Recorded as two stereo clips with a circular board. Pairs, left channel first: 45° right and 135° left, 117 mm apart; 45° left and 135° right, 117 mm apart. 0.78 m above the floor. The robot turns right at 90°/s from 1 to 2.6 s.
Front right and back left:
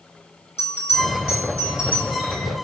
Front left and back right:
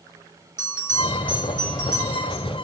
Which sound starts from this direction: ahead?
A bell, at 0.6 s.